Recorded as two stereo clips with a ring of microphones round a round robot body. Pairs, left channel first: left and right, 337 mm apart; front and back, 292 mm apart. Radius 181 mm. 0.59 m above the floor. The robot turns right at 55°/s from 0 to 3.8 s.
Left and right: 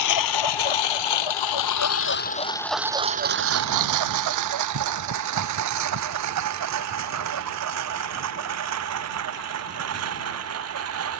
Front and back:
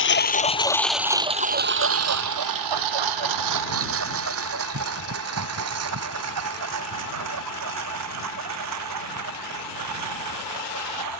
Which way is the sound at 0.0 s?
45° left.